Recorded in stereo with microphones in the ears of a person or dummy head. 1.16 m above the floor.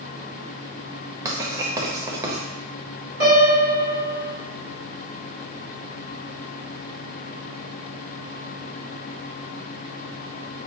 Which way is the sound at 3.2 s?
65° right (ahead or behind).